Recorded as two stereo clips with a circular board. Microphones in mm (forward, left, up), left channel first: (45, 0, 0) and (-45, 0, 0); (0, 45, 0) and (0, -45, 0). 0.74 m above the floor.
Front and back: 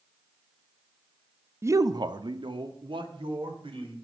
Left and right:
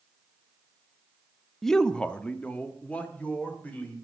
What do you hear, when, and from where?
1.6 s a man speaking: 175° left, 0.5 m; by 3.9 s 165° left, 2.5 m